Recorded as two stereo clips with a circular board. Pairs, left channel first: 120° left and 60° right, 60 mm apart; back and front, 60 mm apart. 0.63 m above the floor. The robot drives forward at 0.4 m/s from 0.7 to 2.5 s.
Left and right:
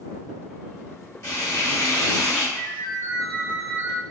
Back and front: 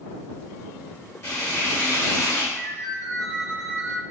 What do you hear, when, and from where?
1.2 s frying: 150° left, 1.6 m; by 2.4 s 155° left, 2 m
2.5 s a ringtone: 155° left, 1.4 m